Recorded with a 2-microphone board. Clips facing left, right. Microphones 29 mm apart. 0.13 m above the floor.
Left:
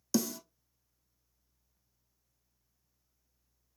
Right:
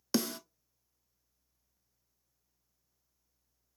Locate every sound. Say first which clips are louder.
0.1 s a snare drum: even; 45° right (ahead or behind), 0.6 m